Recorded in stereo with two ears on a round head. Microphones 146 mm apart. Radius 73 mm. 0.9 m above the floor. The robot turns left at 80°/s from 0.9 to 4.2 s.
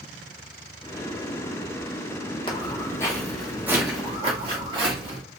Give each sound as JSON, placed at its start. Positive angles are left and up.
{"t": 2.5, "sound": "footsteps", "side_deg": 30, "distance_m": 1.4}